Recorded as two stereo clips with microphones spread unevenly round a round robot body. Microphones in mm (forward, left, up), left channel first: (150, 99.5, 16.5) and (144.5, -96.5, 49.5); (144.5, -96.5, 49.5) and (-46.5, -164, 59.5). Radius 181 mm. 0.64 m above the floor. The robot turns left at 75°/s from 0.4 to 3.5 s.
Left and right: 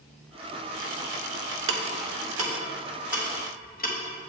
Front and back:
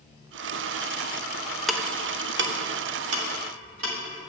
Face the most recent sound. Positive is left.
turn(degrees=155)